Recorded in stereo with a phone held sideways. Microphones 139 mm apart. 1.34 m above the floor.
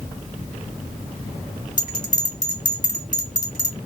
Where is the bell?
60° left (ahead or behind), 2.5 m.